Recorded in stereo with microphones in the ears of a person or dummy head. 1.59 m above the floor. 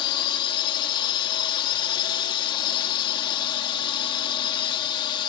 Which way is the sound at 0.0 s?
30° left (ahead or behind).